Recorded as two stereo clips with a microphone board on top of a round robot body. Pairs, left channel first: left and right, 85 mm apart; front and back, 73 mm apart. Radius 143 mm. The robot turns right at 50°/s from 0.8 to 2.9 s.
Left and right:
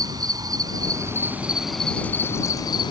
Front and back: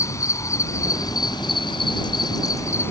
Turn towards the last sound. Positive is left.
turn(degrees=60)